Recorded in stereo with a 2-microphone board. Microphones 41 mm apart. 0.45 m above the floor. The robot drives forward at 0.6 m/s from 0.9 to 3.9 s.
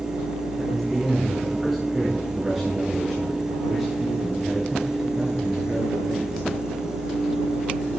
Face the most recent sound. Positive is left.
turn(degrees=0)  # may be behind; listen again after turning